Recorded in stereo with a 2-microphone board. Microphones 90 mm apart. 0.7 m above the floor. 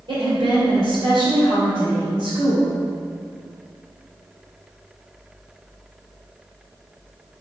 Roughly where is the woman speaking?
Right.